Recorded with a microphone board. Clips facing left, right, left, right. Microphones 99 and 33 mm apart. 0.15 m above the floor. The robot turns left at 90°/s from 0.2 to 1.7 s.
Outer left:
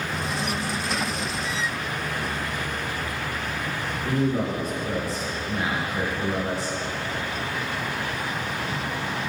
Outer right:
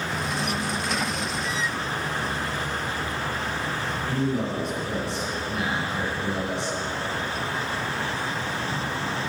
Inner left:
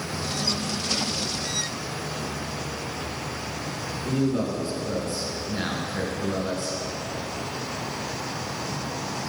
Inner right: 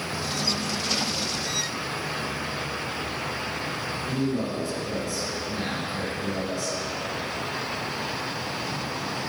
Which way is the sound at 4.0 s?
45° left (ahead or behind).